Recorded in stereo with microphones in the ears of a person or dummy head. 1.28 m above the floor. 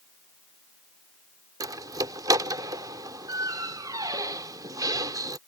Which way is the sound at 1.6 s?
20° right (ahead or behind).